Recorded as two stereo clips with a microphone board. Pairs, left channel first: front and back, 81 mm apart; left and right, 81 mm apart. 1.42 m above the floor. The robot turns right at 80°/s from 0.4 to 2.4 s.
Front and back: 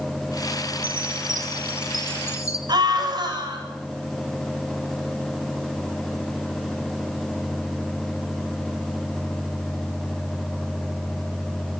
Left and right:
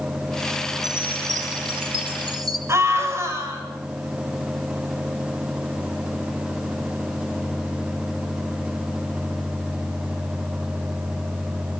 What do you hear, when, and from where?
0.8 s a chime: straight behind, 1.9 m; by 2.6 s 55° right, 1.9 m
2.7 s a scream: 145° right, 8.5 m